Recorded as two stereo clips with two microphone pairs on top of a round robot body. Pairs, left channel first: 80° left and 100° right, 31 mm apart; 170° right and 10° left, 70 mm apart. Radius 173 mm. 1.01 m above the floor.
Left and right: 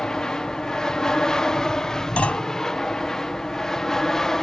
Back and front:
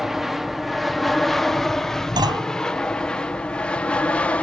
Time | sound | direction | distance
0.0 | an aircraft | 100° left | ?
2.2 | a clunk | 30° left | ?